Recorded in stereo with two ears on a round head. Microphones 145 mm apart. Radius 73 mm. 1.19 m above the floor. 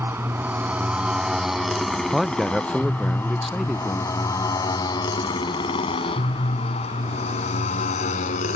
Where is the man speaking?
Centre (ahead or behind).